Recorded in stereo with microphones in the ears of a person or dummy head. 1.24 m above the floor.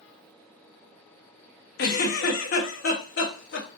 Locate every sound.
1.8 s a giggle: 55° left (ahead or behind), 1.1 m